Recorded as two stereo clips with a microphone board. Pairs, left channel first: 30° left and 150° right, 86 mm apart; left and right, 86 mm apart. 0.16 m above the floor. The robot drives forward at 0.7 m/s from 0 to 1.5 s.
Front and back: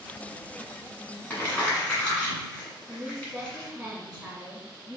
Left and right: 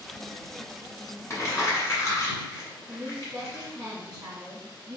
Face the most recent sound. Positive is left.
turn(degrees=-90)